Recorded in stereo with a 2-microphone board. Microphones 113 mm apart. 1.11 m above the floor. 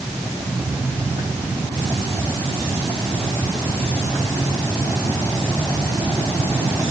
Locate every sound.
Only background noise.